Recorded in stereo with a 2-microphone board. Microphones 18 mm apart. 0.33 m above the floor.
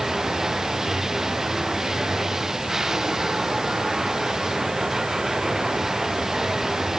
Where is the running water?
25° right (ahead or behind).